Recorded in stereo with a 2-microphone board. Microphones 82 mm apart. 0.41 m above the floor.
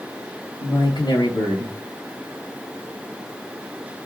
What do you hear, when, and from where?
0.6 s a man speaking: 60° left (ahead or behind), 2.5 m